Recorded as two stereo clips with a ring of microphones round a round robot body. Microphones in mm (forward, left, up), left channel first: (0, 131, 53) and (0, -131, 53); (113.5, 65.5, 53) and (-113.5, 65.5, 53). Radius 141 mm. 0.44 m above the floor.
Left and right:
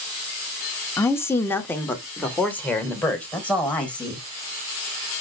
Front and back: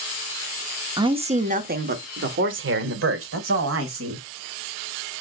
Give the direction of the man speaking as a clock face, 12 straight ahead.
7 o'clock.